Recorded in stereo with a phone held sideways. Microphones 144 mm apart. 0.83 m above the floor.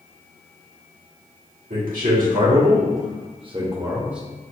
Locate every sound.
1.7 s a man speaking: 75° right (ahead or behind), 1.9 m; by 4.2 s 5° right (ahead or behind), 0.9 m